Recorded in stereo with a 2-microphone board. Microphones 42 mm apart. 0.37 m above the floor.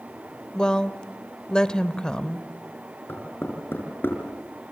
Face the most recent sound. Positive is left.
turn(degrees=55)  # may be behind; listen again after turning